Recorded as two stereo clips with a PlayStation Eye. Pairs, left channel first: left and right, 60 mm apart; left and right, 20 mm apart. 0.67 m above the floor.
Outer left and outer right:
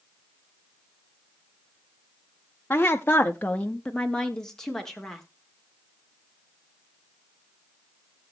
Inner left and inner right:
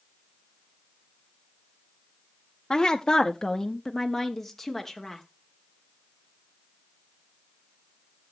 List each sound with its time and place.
2.7 s a woman speaking: 30° left (ahead or behind), 0.8 m; by 5.2 s 5° left (ahead or behind), 1.8 m